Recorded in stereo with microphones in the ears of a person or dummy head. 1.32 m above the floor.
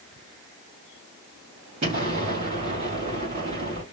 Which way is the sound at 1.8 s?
30° right (ahead or behind).